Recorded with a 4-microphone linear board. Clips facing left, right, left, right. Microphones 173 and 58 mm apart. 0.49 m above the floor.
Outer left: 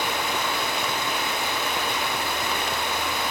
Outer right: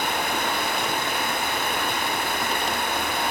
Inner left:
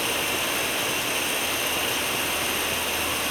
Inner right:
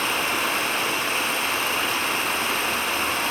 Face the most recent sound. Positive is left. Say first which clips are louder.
# outer right 1 dB, inner right 3 dB
turn(degrees=-55)  # may be behind; listen again after turning